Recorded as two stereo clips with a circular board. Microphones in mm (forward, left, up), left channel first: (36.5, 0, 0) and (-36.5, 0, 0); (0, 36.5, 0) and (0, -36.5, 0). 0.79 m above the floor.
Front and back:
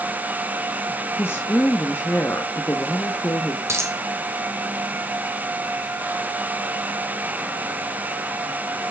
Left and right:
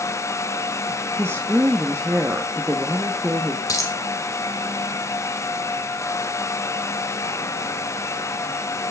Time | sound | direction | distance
1.2 | a woman speaking | 45° right | 1.4 m
3.7 | a dropped coin | 130° left | 1.9 m